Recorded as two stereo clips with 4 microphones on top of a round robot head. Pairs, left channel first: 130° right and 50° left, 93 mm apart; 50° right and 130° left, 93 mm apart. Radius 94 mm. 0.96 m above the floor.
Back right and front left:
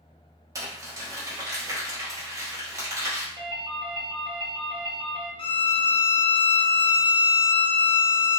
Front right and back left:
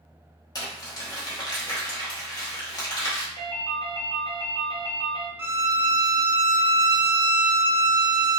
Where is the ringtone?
5° left, 1.3 m.